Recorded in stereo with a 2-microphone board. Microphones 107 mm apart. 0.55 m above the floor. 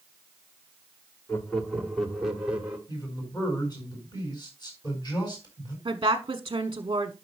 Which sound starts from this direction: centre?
Laughter, at 1.3 s.